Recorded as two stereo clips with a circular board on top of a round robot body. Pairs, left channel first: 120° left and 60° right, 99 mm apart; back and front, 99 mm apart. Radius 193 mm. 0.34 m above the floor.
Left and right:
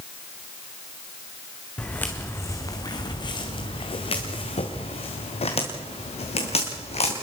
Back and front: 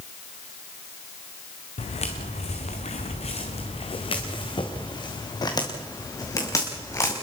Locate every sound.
1.8 s footsteps: 160° right, 2 m; by 7.1 s 120° left, 5 m